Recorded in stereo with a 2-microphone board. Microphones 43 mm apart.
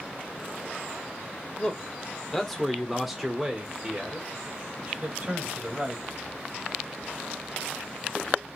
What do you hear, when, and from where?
1.6 s a man speaking: 20° left (ahead or behind), 1.4 m; by 6.0 s 30° right (ahead or behind), 2.5 m